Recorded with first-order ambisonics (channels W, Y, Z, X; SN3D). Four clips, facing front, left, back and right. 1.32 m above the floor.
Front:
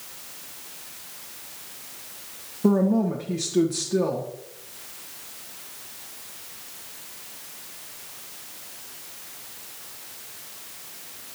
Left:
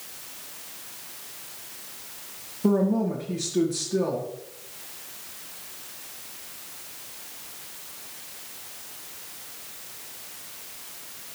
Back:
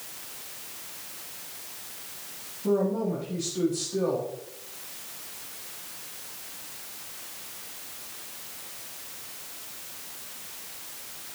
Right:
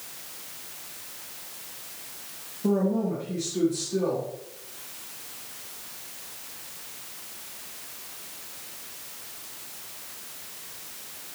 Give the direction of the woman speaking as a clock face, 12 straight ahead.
11 o'clock.